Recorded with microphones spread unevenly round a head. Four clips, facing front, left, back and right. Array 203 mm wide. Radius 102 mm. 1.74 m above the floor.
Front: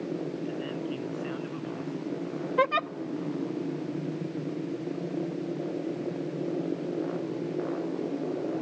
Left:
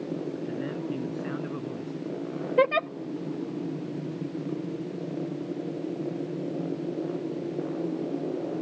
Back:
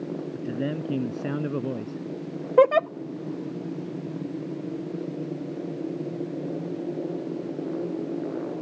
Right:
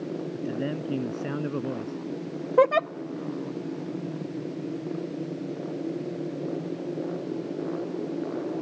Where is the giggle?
170° right.